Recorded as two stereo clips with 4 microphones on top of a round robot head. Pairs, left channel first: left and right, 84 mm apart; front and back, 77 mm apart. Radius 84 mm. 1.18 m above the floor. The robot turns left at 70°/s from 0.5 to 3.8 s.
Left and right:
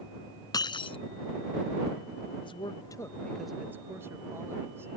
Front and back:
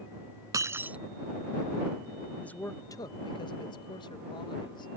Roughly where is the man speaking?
Left.